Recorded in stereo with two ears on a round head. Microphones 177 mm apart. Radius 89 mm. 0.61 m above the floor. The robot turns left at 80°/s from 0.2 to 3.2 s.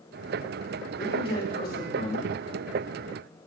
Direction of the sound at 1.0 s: 165° left.